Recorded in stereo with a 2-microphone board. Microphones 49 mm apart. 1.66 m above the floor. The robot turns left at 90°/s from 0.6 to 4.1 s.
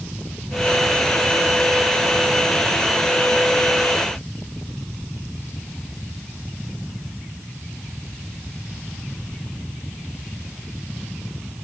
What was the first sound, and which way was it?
Only background noise.